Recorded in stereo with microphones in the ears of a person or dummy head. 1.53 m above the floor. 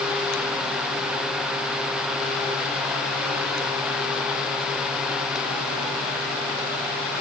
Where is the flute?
No flute in this recording.